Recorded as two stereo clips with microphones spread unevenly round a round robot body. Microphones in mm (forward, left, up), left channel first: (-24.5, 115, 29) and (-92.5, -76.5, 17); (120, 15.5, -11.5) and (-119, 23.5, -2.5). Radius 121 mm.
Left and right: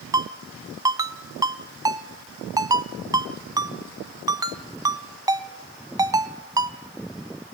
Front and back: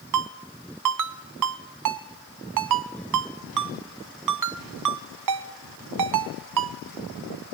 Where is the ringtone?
Straight behind, 1.3 m.